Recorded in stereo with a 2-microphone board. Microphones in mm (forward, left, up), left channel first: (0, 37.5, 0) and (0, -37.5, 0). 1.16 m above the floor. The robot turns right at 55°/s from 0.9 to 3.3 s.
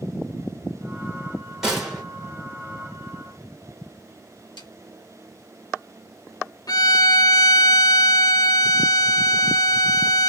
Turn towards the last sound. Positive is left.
turn(degrees=60)  # may be behind; listen again after turning